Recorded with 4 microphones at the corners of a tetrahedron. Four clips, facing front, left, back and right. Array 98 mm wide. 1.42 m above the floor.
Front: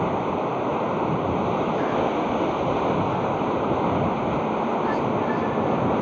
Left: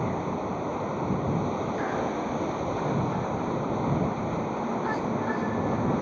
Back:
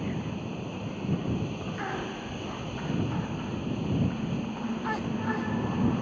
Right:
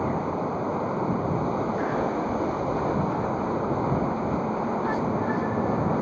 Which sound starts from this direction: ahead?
Running water, at 0.0 s.